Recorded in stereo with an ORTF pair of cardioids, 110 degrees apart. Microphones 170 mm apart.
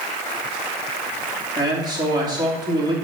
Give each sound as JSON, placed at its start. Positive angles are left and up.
{"t": 1.6, "sound": "a man speaking", "azimuth_deg": -25, "distance_m": 3.0}